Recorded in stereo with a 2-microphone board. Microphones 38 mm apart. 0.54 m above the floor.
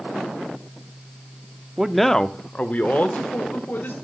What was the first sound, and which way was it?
A man speaking, 15° right (ahead or behind).